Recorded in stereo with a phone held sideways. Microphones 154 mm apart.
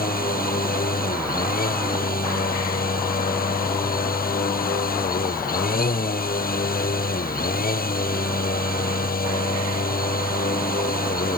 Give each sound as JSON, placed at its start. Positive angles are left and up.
{"t": 0.0, "sound": "a machine running", "side_deg": 75}